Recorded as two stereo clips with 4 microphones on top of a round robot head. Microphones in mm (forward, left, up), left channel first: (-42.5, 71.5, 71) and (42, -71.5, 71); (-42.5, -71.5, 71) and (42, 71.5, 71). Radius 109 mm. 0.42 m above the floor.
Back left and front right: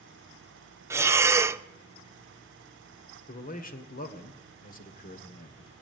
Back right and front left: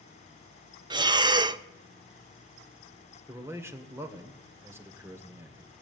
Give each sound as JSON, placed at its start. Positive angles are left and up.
{"t": 0.9, "sound": "breathing", "azimuth_deg": 10, "distance_m": 0.7}
{"t": 3.3, "sound": "a man speaking", "azimuth_deg": 130, "distance_m": 1.9}